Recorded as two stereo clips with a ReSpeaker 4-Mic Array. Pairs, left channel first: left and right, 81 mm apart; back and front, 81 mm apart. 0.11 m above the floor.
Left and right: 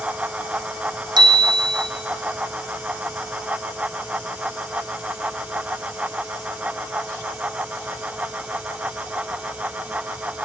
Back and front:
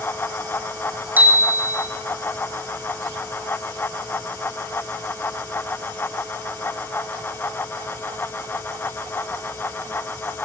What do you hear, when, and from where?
1.2 s a bicycle bell: 70° right, 4 m